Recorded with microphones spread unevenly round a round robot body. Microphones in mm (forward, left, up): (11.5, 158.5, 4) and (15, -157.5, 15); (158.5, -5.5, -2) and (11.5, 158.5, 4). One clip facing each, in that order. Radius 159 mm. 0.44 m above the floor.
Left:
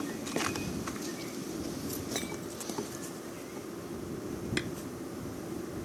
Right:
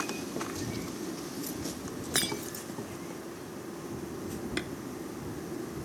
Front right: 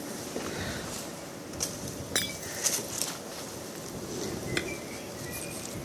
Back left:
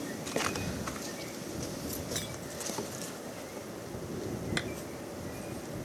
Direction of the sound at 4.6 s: 10° left.